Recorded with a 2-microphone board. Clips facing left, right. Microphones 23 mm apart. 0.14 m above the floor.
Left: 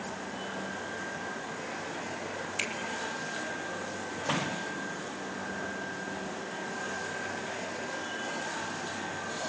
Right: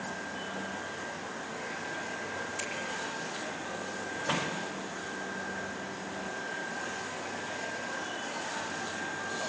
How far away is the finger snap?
About 4 m.